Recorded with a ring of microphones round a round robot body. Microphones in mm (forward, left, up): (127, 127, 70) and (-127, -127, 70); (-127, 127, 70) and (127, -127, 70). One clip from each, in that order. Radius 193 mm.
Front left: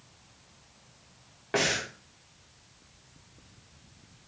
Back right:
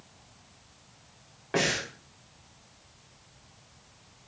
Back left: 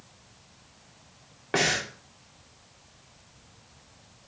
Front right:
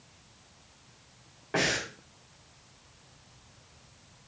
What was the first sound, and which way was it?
Breathing, 115° left.